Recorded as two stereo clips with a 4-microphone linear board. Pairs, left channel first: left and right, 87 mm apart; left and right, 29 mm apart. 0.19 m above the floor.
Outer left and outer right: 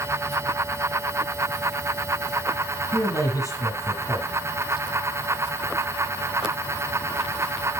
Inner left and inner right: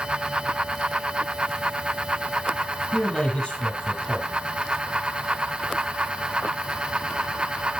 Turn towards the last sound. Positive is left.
turn(degrees=40)  # may be behind; listen again after turning